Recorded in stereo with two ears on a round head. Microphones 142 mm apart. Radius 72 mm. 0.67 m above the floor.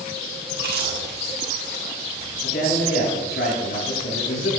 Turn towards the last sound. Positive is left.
turn(degrees=75)  # may be behind; listen again after turning